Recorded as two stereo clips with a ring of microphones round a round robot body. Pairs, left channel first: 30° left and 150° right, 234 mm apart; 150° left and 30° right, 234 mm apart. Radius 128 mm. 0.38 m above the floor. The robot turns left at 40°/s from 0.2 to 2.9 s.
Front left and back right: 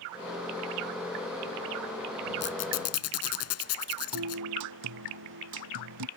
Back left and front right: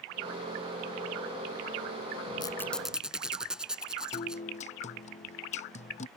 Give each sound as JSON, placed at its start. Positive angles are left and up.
{"t": 2.4, "sound": "a squeak", "azimuth_deg": 75}
{"t": 4.1, "sound": "a guitar", "azimuth_deg": -150}